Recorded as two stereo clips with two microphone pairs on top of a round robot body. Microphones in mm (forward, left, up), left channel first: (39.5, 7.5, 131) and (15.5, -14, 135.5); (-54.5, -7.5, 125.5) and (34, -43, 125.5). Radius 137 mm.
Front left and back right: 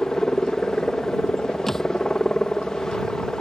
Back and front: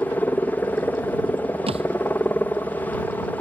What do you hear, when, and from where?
0.0 s a helicopter: 95° left
1.7 s a thud: 35° right